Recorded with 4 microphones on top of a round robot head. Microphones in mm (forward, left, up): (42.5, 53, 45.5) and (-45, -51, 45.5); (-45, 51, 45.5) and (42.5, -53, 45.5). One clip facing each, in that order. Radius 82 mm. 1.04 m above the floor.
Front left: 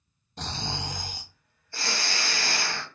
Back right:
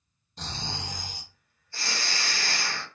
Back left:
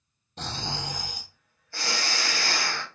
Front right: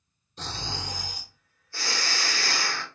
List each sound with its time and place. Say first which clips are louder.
0.4 s snoring: front left 3 dB, back left 2 dB; 95° left, 0.6 m